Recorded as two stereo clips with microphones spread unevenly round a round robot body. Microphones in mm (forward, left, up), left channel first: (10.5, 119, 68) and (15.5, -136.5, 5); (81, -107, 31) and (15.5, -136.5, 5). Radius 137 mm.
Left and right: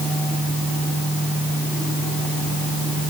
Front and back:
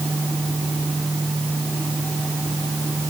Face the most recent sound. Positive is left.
No sound to turn to.